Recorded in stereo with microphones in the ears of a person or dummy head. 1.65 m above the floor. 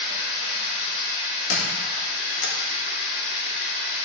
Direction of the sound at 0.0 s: 80° left.